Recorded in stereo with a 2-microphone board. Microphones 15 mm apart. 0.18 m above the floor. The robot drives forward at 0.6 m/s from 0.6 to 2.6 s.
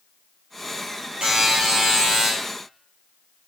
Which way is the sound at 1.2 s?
75° right (ahead or behind).